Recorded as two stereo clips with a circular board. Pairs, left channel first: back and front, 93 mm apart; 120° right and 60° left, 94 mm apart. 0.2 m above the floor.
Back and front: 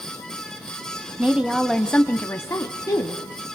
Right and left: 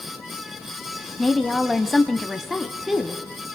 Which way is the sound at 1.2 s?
35° right.